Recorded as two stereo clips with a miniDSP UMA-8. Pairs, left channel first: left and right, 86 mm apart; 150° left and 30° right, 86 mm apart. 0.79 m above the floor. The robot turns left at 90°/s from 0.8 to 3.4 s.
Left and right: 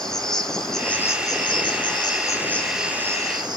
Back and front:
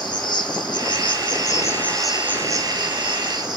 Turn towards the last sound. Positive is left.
turn(degrees=-60)